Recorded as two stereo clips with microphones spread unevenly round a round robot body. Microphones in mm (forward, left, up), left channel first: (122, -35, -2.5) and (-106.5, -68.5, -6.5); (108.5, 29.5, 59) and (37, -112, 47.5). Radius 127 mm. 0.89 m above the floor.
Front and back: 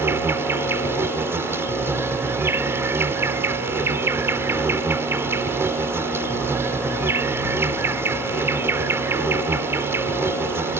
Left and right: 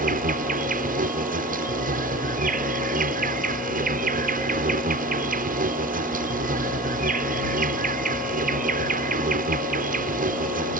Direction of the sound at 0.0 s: 95° right.